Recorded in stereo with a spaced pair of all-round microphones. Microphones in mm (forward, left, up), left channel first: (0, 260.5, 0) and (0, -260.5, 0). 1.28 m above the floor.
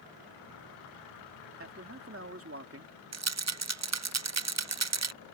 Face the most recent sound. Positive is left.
turn(degrees=-30)  # may be behind; listen again after turning